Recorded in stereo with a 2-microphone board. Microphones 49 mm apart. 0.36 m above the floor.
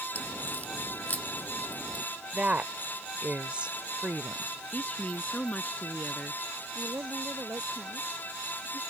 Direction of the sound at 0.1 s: 35° left (ahead or behind).